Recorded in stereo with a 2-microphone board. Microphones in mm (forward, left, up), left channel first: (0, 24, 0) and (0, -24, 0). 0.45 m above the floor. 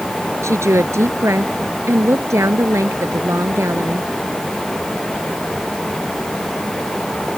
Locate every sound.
0.4 s a woman speaking: 75° right (ahead or behind)